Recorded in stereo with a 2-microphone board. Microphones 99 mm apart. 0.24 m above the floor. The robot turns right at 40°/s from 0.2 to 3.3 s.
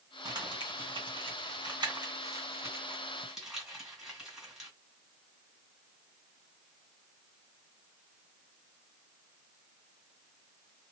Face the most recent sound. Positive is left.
turn(degrees=-5)  # may be behind; listen again after turning